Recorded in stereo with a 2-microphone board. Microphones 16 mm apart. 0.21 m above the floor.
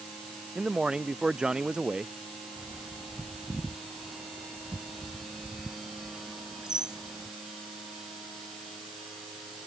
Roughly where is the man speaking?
Right.